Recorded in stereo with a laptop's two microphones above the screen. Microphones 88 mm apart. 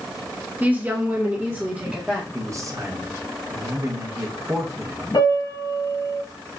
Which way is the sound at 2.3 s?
35° right (ahead or behind).